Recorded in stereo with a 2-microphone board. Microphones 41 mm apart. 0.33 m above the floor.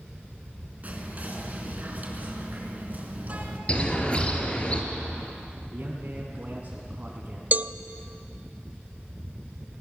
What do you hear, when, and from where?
0.8 s whispering: 40° right (ahead or behind), 4.5 m
3.7 s a bird: 30° left (ahead or behind), 3 m
5.7 s a man speaking: 35° right (ahead or behind), 3 m
7.5 s a cowbell: 40° right (ahead or behind), 0.5 m